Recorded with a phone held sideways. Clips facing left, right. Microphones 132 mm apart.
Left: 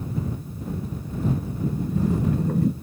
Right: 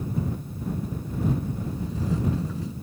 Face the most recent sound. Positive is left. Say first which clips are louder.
# left 6 dB
turn(degrees=55)  # may be behind; listen again after turning